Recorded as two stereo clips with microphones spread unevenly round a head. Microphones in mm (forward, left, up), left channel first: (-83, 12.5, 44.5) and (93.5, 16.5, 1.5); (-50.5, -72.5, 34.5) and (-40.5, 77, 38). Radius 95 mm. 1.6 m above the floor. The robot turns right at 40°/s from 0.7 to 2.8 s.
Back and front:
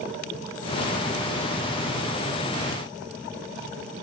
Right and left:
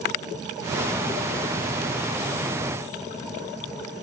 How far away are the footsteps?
I don't hear footsteps.